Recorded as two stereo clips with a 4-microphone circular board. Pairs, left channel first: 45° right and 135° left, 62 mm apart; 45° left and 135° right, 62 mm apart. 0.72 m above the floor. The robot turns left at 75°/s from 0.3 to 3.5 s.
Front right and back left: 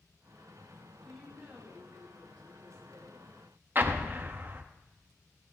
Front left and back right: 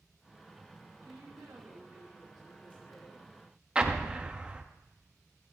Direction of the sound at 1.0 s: 125° right.